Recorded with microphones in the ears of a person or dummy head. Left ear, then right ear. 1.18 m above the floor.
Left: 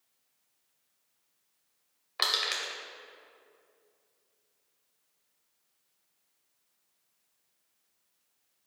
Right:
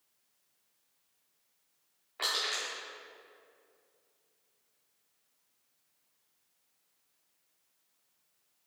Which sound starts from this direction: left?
Crushing, at 2.2 s.